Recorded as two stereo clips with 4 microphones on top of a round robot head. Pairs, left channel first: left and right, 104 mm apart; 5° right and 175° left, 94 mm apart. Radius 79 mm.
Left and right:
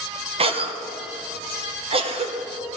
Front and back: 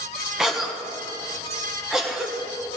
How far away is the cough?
About 1.2 m.